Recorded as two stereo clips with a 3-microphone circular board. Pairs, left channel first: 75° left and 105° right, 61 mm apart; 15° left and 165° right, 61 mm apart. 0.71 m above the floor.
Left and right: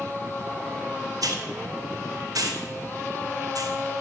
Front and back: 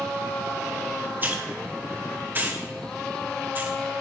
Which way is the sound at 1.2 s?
105° right.